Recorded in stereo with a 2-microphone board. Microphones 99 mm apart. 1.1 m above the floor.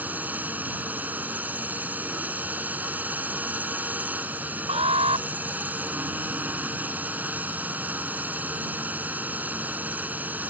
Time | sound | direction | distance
0.0 | a drone | 15° right (ahead or behind) | ?
4.7 | an alarm | 80° right | ?